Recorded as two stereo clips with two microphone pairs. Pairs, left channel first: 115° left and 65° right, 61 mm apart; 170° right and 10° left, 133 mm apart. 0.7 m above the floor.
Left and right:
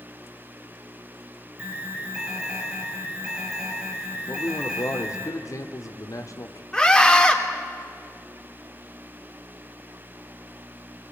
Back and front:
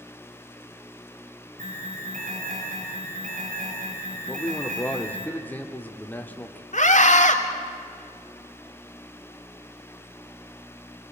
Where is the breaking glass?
No breaking glass in this recording.